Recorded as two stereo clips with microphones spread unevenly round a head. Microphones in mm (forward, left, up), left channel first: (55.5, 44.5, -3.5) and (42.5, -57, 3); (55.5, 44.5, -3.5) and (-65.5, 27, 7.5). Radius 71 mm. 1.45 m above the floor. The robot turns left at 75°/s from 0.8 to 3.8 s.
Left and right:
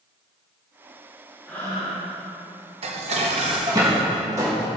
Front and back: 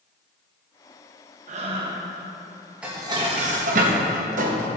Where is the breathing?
170° left, 1.5 m; by 2.1 s 120° left, 1.5 m.